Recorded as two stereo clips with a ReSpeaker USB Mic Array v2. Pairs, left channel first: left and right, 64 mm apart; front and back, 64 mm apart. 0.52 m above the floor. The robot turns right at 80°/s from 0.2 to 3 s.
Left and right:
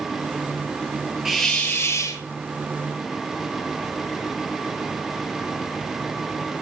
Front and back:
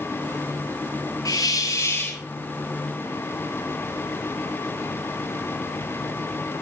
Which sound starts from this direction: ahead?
A hiss, at 1.2 s.